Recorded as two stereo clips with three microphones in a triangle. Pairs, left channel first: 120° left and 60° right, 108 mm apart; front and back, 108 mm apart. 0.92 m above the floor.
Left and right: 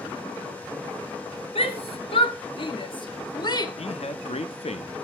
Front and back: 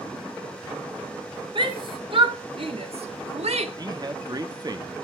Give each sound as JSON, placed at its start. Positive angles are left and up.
{"t": 1.6, "sound": "a shout", "azimuth_deg": 140, "distance_m": 2.0}
{"t": 3.8, "sound": "a man speaking", "azimuth_deg": 130, "distance_m": 1.2}